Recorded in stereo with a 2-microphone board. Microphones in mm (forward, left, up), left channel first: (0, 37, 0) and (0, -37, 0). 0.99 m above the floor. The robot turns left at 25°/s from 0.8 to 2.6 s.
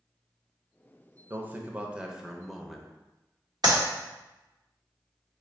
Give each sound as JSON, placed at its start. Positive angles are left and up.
{"t": 1.3, "sound": "a man speaking", "azimuth_deg": -145, "distance_m": 0.5}
{"t": 3.6, "sound": "a clap", "side_deg": -60, "distance_m": 1.2}